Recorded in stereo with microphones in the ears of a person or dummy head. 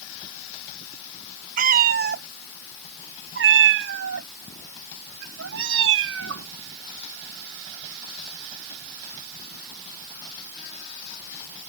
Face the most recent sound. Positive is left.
turn(degrees=-80)